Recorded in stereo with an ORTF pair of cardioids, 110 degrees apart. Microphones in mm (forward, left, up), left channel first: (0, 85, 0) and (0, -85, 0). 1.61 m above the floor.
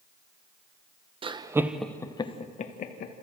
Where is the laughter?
30° right, 1.3 m; by 3.1 s 60° left, 1.9 m.